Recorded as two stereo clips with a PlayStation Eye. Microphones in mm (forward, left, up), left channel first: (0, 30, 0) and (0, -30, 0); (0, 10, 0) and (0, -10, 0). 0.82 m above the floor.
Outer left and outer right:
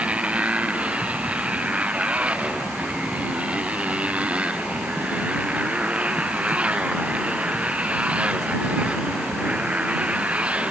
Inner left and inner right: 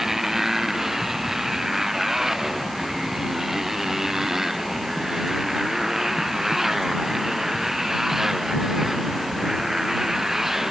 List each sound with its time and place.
0.0 s a motorcycle: 20° right (ahead or behind)